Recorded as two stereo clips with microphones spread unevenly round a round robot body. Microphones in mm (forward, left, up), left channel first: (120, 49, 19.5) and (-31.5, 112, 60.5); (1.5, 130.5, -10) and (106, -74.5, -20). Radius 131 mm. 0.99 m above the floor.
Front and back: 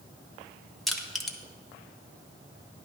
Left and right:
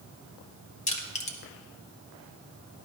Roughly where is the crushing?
Ahead left.